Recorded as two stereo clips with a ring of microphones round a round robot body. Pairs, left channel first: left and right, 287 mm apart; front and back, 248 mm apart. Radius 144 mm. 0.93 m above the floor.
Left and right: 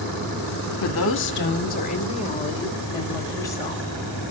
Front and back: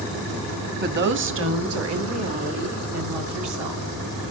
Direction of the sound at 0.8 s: 130° left.